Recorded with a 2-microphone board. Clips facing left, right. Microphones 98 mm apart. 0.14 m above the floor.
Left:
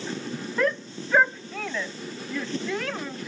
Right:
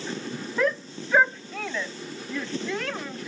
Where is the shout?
Centre (ahead or behind).